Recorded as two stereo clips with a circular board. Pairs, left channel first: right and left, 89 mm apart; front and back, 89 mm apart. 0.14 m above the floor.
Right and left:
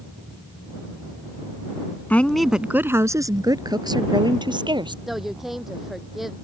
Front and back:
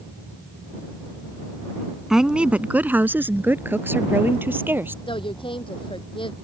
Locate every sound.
2.1 s a woman speaking: 105° right; by 5.0 s 115° left
5.1 s a woman speaking: 5° left